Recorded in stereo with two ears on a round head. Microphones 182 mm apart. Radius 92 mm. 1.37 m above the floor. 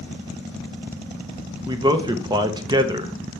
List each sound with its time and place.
1.7 s a man speaking: 20° right (ahead or behind), 0.9 m